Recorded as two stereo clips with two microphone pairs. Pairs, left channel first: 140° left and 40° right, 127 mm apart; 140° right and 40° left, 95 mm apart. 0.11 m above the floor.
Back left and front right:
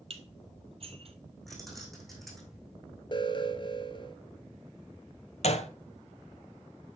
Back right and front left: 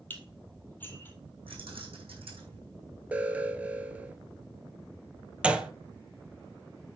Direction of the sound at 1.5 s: 50° left.